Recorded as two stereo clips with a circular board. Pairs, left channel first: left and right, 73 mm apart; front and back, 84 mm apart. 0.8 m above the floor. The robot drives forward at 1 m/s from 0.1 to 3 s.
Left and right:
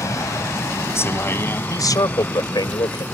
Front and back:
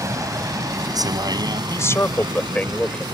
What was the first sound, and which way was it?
A vehicle, 135° left.